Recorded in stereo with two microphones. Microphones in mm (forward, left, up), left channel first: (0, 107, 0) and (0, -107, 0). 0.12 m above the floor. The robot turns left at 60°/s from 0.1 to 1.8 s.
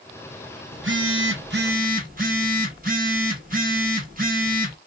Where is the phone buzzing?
70° right, 1.4 m; by 4.8 s 135° right, 1.4 m.